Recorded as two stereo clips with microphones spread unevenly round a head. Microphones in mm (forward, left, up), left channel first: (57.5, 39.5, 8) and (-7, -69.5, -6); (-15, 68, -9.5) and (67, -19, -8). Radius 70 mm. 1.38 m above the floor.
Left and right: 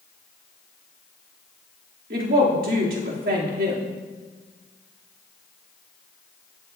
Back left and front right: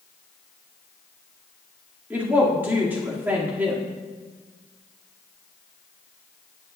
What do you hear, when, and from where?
2.1 s a woman speaking: 125° right, 2.5 m